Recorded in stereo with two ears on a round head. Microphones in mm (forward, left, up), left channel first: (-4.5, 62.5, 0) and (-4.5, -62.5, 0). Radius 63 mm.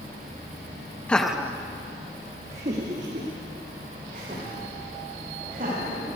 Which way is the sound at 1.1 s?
10° left (ahead or behind).